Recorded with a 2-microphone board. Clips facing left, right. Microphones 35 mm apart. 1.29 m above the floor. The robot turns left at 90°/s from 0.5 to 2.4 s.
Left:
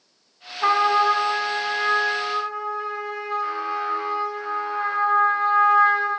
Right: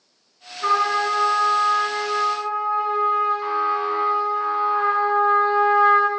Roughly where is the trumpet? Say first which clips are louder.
Left 2 dB; left.